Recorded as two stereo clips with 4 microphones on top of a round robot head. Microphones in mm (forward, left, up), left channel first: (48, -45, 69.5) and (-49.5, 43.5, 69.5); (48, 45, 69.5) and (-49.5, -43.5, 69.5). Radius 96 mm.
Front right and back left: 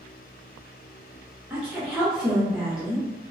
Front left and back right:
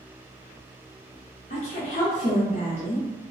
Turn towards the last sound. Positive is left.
turn(degrees=55)